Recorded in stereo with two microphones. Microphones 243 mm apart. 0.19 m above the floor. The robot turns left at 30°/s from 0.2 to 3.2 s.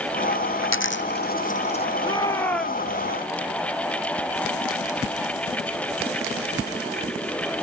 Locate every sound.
0.6 s a dropped coin: 60° left (ahead or behind); by 1.9 s 25° left (ahead or behind)
2.0 s a shout: 20° left (ahead or behind); by 2.9 s 5° right (ahead or behind)